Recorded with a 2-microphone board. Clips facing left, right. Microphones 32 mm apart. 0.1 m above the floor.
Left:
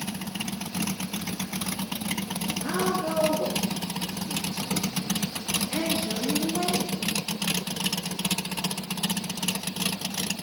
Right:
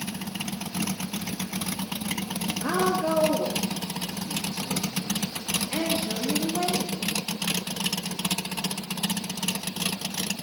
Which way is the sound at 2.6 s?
45° right (ahead or behind).